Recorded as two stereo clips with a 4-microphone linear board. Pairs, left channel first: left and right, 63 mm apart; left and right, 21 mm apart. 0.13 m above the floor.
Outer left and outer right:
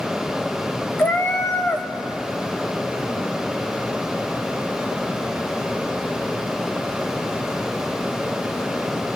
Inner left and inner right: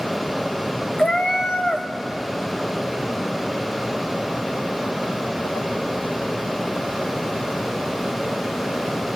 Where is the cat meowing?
35° left (ahead or behind), 1.6 m.